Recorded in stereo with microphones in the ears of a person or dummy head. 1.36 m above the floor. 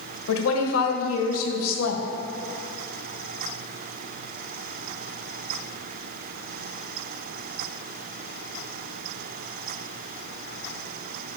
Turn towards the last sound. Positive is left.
turn(degrees=80)